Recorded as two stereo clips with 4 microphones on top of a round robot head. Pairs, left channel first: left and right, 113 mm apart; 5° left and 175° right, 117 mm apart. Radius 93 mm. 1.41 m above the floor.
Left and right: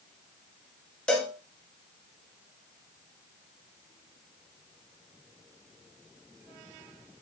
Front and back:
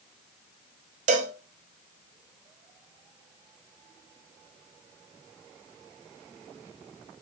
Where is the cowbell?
175° left, 0.6 m.